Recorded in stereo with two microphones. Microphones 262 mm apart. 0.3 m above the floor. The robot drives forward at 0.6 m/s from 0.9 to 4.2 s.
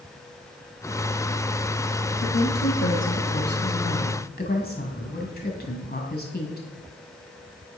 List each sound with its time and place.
2.2 s a woman speaking: 50° left (ahead or behind), 1.5 m; by 6.7 s 40° left (ahead or behind), 1.9 m